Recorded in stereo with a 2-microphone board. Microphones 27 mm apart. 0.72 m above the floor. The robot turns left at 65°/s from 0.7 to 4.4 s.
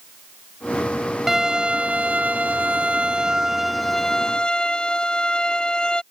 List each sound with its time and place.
1.3 s a violin: 20° right; by 6.0 s 135° left